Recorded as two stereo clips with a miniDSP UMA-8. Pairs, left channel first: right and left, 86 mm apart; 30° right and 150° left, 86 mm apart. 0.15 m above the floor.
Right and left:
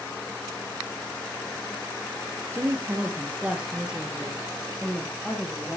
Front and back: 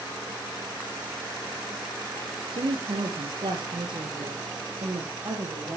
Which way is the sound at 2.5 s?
150° left.